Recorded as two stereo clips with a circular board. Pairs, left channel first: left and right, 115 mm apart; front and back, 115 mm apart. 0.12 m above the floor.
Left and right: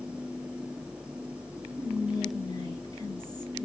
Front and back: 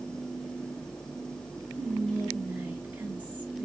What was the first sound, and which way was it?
Whispering, 115° left.